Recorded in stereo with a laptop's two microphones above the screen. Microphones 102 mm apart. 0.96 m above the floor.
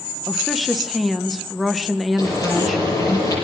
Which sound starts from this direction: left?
Frying, at 2.2 s.